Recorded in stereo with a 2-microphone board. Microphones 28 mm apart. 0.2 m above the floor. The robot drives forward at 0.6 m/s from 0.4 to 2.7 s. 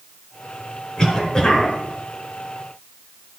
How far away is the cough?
About 2.5 m.